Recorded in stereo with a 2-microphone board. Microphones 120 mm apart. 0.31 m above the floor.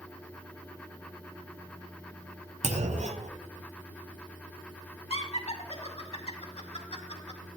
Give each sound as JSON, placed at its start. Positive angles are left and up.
{"t": 2.6, "sound": "a clunk", "side_deg": -70, "distance_m": 0.7}
{"t": 5.1, "sound": "laughter", "side_deg": 55, "distance_m": 2.0}